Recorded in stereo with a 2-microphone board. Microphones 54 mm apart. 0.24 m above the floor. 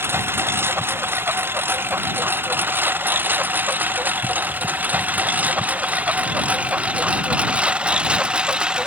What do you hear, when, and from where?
0.0 s a lawn mower: 45° right (ahead or behind); by 8.9 s 20° right (ahead or behind)